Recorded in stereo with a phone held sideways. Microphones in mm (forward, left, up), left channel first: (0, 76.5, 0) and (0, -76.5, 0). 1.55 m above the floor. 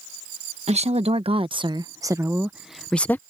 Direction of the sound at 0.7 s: 45° right (ahead or behind).